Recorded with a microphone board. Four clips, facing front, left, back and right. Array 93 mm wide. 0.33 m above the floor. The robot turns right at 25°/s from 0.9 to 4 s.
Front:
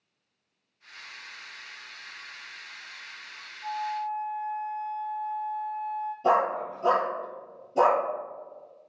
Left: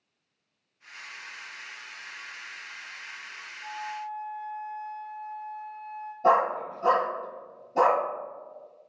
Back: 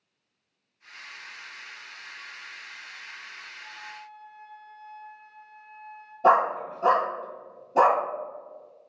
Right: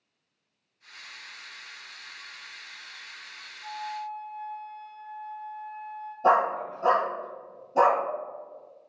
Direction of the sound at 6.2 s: 175° right.